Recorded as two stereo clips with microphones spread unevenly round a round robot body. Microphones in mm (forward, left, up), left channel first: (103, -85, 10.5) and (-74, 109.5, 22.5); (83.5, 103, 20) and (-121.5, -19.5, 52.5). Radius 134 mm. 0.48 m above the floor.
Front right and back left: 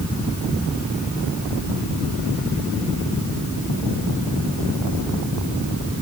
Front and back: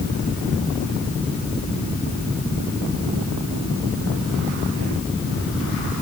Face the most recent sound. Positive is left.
No sound to turn to.